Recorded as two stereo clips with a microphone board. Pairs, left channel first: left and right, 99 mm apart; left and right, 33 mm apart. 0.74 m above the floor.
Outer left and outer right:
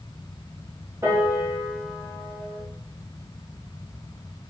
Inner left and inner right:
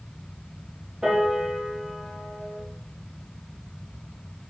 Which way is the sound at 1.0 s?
30° right (ahead or behind).